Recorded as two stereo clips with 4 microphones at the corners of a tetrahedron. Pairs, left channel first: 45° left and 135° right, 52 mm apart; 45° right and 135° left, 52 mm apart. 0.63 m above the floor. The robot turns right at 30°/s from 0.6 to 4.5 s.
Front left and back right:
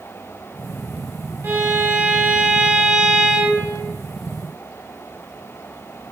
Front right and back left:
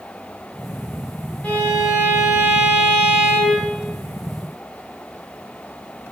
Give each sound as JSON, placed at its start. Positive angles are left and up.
{"t": 1.4, "sound": "a violin", "azimuth_deg": -110, "distance_m": 1.0}